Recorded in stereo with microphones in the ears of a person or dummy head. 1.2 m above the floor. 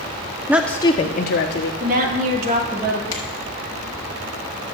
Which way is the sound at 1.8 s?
45° right (ahead or behind).